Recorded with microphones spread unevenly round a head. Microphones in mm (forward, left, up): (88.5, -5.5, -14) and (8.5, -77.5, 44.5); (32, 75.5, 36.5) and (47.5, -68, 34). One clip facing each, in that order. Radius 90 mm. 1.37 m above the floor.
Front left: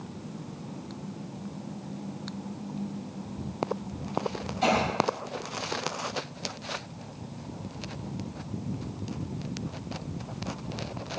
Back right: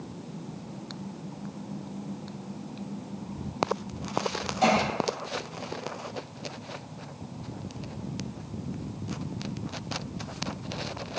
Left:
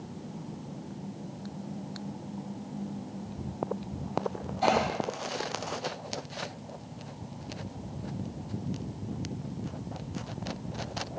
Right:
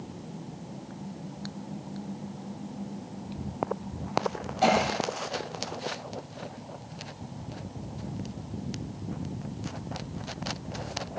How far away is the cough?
About 6.5 m.